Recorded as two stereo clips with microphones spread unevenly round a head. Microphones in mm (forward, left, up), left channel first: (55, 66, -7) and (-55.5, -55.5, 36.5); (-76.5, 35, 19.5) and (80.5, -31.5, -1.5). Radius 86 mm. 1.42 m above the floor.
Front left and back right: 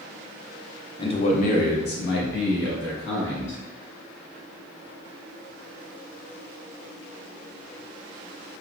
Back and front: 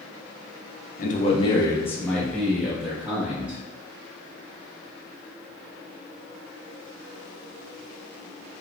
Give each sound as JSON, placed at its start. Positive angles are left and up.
{"t": 1.0, "sound": "a man speaking", "azimuth_deg": 120, "distance_m": 0.9}